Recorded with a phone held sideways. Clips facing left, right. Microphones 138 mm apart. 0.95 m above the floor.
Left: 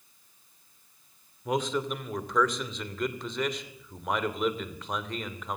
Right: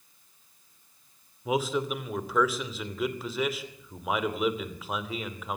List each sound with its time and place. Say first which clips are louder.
1.4 s a man speaking: right 1 dB; 5° right (ahead or behind), 2.5 m